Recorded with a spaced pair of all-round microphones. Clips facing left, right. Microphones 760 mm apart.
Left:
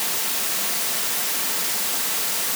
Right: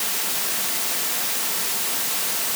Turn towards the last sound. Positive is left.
No sound to turn to.